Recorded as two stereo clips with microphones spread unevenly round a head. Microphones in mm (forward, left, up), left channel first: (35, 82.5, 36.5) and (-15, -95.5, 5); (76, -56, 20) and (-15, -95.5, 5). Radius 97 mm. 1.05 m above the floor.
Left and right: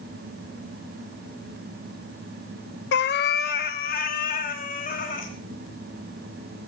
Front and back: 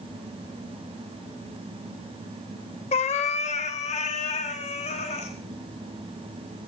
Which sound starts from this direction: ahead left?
A cat meowing, at 2.9 s.